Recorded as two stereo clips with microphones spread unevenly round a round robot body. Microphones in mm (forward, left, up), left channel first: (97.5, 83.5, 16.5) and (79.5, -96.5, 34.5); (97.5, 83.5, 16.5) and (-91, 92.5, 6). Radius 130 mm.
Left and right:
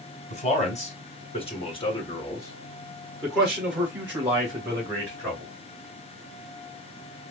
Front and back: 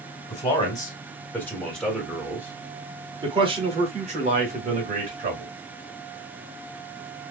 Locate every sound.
0.3 s a man speaking: 60° left, 2.0 m; by 5.5 s 160° right, 2 m